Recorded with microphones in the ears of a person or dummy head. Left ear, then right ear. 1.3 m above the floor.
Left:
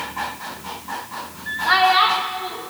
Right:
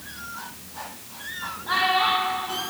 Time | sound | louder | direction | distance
1.7 | a child speaking | left 6 dB | 70° left (ahead or behind) | 0.9 m